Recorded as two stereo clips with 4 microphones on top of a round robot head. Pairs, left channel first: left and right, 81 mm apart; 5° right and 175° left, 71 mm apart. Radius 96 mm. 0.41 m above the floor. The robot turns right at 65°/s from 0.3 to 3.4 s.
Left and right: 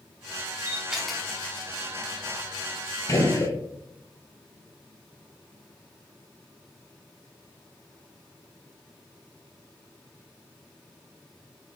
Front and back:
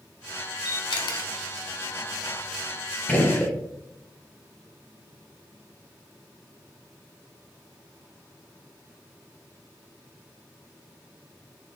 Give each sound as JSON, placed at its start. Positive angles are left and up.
{"t": 0.7, "sound": "a camera shutter", "azimuth_deg": -25, "distance_m": 0.7}
{"t": 3.1, "sound": "a gunshot", "azimuth_deg": 55, "distance_m": 1.1}